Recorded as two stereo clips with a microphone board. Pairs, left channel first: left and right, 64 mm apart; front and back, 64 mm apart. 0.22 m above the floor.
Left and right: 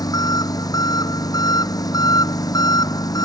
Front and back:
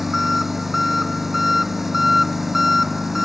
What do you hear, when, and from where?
0.0 s an engine running: 95° left